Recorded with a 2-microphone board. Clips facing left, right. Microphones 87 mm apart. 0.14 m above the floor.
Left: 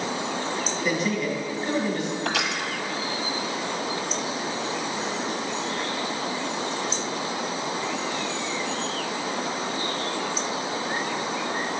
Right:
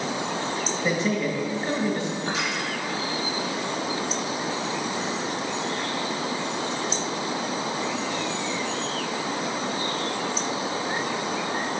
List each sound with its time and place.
0.8 s a man speaking: 30° right (ahead or behind), 2 m
2.2 s crushing: 75° left (ahead or behind), 1.0 m